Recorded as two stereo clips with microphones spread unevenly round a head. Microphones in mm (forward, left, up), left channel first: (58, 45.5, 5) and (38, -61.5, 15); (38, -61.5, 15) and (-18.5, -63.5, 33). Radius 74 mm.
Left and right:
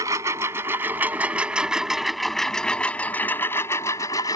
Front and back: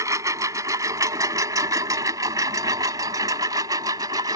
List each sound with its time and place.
0.0 s a lawn mower: 170° right; by 4.4 s 150° left